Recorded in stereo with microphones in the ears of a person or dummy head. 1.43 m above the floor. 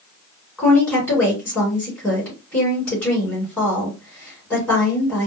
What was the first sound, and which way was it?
A woman speaking, 5° left (ahead or behind).